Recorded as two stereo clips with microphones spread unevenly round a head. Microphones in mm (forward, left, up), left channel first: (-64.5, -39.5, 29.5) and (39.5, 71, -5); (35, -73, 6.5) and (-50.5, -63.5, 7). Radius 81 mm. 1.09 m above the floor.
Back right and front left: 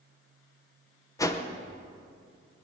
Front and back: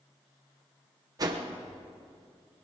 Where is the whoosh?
150° left, 1.0 m.